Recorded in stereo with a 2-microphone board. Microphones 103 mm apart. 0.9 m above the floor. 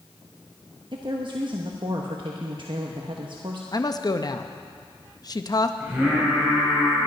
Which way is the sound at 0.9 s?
55° right (ahead or behind).